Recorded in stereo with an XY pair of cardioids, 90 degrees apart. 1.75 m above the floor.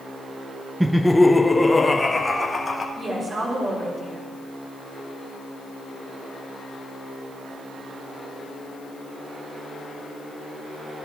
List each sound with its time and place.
0.8 s laughter: 10° right, 0.6 m; by 2.9 s 25° left, 2.5 m
3.0 s a woman speaking: 35° right, 6 m